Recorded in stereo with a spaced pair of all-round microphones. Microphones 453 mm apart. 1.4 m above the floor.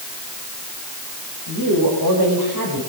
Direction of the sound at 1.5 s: 60° right (ahead or behind).